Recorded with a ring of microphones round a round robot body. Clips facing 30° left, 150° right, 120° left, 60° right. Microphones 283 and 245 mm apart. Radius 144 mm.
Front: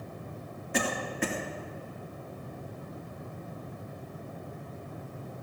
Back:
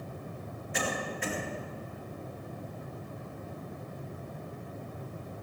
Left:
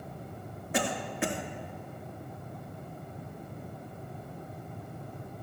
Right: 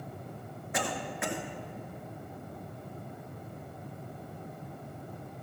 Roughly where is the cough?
Ahead left.